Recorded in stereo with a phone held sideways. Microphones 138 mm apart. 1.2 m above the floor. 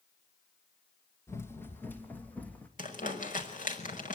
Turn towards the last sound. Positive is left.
turn(degrees=75)  # may be behind; listen again after turning